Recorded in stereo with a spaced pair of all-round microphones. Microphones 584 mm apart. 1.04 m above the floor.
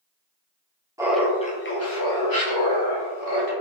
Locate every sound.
1.0 s laughter: 5° right (ahead or behind), 0.5 m; by 3.5 s 45° left (ahead or behind), 1.2 m